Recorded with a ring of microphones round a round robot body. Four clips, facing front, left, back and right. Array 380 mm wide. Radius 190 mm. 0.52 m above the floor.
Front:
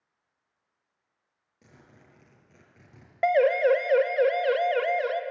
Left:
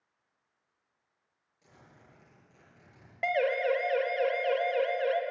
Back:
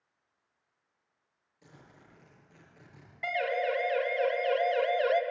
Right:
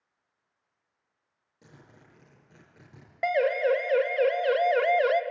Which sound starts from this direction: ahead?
A siren, at 3.2 s.